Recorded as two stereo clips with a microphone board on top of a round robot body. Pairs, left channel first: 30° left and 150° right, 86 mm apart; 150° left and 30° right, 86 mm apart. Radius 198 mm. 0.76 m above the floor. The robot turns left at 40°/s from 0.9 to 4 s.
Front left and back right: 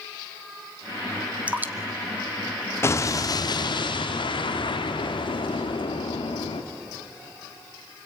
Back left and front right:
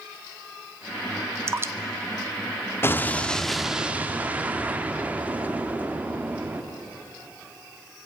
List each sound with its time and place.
1.5 s dripping: 80° right, 1.1 m; by 1.7 s 90° right, 1.1 m
2.8 s an explosion: 90° left, 1.3 m; by 6.6 s 40° left, 1.3 m